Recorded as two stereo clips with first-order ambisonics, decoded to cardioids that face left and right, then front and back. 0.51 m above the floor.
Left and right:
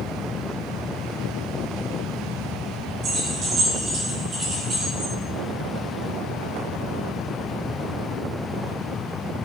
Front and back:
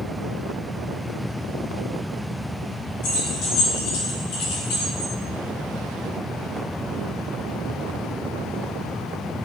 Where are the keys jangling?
30° right, 3.5 m; by 5.1 s 20° right, 4.5 m.